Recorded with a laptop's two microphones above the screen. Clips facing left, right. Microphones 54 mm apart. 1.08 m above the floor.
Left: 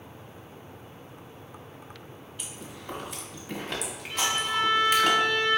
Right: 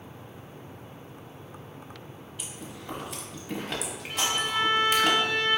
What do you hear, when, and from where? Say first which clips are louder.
2.4 s chewing: right 1 dB; centre (ahead or behind), 1.2 m
4.1 s a violin: left 1 dB; 50° right (ahead or behind), 1.8 m